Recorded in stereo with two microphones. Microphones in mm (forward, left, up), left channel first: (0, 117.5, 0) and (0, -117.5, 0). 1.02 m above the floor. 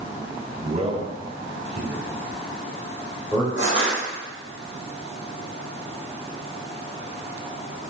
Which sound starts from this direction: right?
A man speaking, at 0.6 s.